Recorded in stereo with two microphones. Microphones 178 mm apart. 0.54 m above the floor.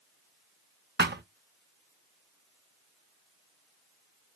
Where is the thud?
75° right (ahead or behind), 0.5 m.